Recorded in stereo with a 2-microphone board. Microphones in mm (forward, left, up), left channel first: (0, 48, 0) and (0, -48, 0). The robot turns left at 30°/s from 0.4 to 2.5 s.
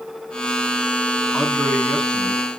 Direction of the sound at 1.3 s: 5° right (ahead or behind).